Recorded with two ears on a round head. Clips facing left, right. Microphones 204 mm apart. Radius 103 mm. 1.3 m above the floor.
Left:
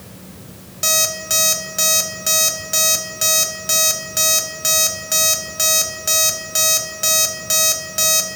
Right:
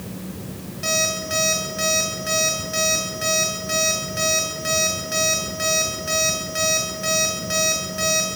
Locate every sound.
0.8 s an alarm clock: 65° left (ahead or behind), 3 m